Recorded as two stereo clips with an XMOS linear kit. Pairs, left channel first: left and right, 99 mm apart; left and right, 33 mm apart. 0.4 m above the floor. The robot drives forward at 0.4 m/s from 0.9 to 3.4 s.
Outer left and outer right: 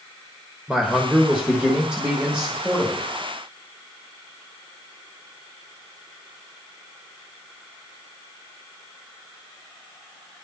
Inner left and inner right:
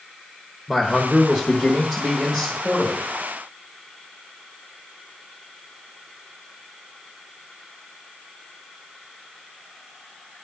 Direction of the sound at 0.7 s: 10° right (ahead or behind).